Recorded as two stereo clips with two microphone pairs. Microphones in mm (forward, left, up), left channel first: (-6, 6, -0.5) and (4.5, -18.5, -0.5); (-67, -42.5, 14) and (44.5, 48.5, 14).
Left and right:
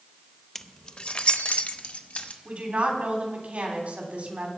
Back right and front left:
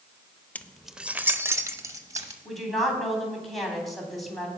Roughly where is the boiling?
I don't hear boiling.